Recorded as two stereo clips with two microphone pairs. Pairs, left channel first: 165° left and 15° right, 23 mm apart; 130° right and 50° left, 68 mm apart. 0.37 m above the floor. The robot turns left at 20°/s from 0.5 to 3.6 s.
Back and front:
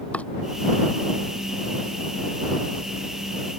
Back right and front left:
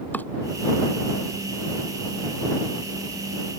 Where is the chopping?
165° left.